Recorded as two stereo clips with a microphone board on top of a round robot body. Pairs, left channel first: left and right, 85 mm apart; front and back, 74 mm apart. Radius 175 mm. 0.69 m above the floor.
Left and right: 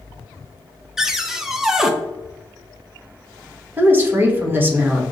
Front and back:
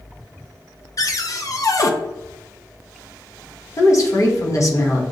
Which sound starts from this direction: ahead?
A cupboard door, at 1.0 s.